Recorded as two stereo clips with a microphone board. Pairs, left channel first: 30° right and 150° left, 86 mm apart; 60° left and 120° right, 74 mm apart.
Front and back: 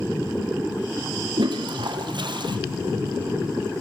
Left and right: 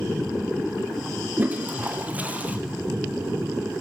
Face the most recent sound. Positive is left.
turn(degrees=170)